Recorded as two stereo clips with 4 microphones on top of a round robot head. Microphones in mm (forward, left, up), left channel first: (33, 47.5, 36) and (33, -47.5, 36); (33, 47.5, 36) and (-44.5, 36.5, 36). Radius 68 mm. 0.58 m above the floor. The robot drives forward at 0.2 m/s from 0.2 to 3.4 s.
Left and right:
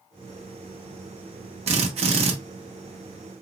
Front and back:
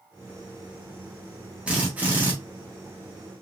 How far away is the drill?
About 0.9 m.